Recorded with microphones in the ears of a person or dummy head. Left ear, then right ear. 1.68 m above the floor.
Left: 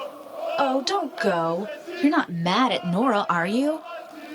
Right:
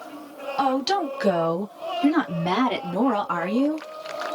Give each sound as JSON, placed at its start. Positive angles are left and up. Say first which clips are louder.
{"t": 0.6, "sound": "a woman speaking", "louder": "right 1 dB", "side_deg": 15, "distance_m": 1.7}